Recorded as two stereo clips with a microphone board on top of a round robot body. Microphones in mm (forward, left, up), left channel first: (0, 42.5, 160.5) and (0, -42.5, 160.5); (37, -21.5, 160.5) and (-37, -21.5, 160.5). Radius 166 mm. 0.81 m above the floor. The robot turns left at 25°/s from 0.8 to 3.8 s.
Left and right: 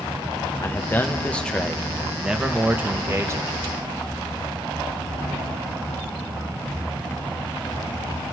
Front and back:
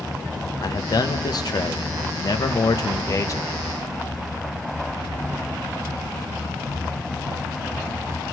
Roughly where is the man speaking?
Ahead left.